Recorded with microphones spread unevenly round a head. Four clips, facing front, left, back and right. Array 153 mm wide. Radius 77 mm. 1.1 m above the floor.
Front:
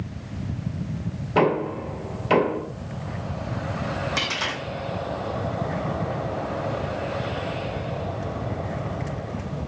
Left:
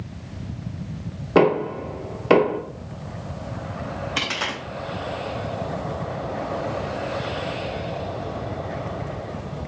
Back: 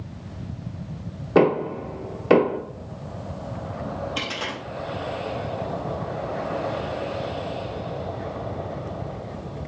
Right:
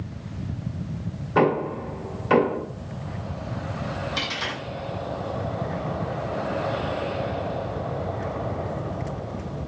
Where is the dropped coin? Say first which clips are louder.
Left 2 dB, front 2 dB; 95° left, 0.5 m.